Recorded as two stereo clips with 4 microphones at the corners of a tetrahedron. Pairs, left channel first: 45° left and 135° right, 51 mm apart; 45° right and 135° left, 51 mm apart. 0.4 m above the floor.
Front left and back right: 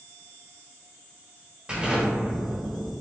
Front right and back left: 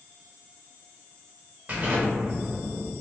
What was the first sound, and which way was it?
An explosion, 170° left.